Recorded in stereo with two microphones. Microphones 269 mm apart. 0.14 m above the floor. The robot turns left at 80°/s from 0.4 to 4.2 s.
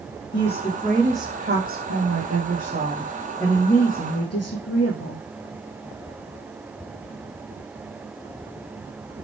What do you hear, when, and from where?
0.3 s a woman speaking: 50° left, 6.5 m; by 5.2 s 105° left, 6.5 m